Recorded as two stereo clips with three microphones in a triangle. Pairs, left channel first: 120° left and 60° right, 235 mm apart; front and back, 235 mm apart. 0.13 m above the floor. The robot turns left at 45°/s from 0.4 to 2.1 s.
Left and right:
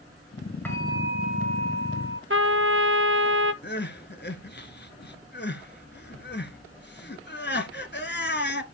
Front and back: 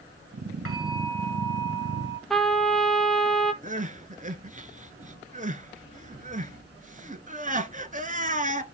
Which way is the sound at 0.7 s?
155° right.